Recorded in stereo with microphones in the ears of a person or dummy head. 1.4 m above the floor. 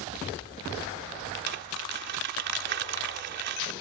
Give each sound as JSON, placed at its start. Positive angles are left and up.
{"t": 1.5, "sound": "crumpling", "side_deg": -65}